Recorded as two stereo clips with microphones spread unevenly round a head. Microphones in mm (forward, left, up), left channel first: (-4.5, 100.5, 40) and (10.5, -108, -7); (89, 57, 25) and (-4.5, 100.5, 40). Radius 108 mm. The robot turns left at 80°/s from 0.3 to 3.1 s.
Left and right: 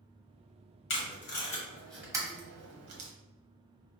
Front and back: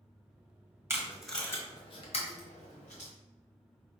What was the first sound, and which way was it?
Tape being pulled, 95° left.